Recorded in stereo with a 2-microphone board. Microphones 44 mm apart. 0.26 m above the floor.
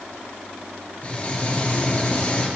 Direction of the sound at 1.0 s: 35° left (ahead or behind).